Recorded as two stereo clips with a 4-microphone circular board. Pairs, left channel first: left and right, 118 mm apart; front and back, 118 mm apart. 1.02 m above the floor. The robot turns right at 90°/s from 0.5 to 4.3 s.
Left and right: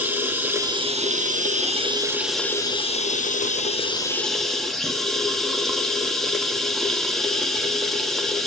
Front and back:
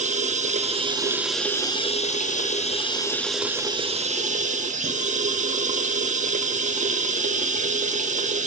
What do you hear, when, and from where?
0.0 s running water: 165° right, 1.1 m; by 8.5 s straight behind, 1.1 m